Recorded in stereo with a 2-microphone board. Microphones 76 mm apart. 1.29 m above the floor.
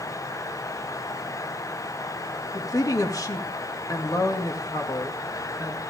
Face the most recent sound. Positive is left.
turn(degrees=50)  # may be behind; listen again after turning